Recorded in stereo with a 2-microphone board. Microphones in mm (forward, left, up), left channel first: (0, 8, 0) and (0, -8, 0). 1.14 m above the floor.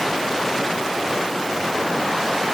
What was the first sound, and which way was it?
Only background noise.